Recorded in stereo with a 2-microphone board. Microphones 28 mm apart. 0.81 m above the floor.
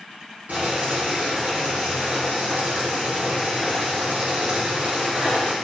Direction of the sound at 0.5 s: 65° right (ahead or behind).